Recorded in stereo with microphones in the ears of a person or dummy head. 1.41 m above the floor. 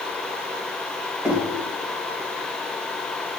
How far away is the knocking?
About 1.3 m.